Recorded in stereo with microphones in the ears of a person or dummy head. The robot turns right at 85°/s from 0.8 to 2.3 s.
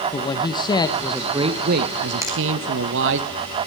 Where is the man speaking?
155° left, 1.0 m; by 3.2 s 80° right, 1.0 m.